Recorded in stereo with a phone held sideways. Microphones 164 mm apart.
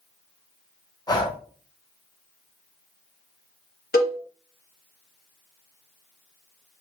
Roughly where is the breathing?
Left.